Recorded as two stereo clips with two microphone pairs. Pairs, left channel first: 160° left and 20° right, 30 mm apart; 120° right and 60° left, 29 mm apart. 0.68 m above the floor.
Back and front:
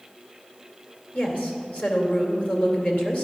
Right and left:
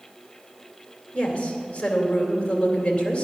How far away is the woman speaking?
About 2.5 m.